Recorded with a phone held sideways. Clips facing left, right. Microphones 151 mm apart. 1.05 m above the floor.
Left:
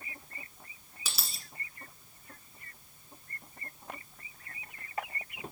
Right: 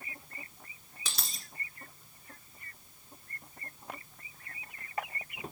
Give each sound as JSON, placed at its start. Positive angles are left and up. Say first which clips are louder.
{"t": 1.1, "sound": "a dropped coin", "louder": "even", "side_deg": 5, "distance_m": 1.7}